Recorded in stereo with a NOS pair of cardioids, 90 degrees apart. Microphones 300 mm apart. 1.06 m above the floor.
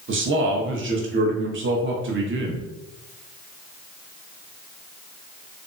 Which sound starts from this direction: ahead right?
A man speaking, at 0.1 s.